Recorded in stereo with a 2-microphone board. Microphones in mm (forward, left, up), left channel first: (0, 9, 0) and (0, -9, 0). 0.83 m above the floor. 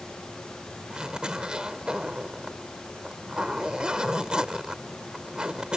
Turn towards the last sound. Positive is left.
turn(degrees=-60)  # may be behind; listen again after turning